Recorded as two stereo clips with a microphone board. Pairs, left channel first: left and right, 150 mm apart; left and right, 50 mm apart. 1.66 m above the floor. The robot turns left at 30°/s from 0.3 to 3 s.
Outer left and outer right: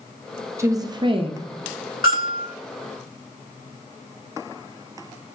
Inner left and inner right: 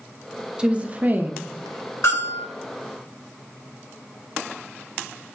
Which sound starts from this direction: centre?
A woman speaking, at 0.6 s.